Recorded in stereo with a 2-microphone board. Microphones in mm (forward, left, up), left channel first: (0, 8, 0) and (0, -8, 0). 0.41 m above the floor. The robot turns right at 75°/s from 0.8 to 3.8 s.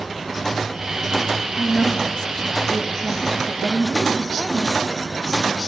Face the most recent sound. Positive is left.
turn(degrees=-125)